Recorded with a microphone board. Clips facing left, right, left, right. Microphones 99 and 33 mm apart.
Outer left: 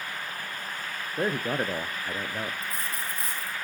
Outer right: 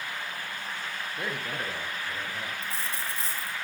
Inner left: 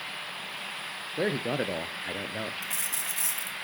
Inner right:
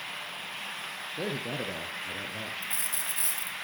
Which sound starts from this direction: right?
A dropped coin, at 2.6 s.